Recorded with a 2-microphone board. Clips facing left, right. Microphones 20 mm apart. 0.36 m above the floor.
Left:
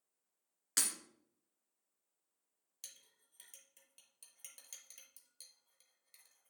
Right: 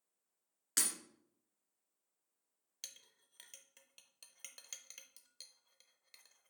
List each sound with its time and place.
0.8 s breaking glass: centre (ahead or behind), 1.8 m
2.8 s a clink: 30° right (ahead or behind), 0.8 m